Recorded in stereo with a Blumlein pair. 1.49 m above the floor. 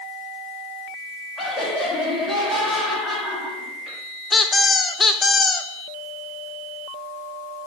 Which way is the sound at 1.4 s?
10° left.